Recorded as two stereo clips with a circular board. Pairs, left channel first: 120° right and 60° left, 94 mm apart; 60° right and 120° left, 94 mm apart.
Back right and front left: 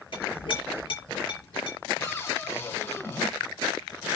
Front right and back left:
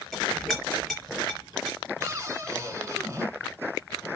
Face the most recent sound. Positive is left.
turn(degrees=180)